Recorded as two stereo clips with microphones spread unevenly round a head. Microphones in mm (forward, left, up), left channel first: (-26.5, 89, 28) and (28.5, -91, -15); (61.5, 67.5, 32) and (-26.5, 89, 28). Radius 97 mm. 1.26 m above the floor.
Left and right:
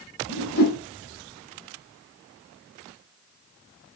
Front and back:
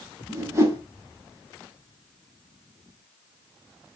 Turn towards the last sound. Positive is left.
turn(degrees=110)